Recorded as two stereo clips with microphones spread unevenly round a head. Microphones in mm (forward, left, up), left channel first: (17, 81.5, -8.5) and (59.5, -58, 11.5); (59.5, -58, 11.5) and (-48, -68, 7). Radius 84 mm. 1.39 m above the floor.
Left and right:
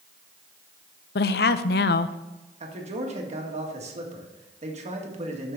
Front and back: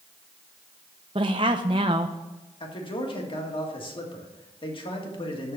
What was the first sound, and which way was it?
A woman speaking, 125° left.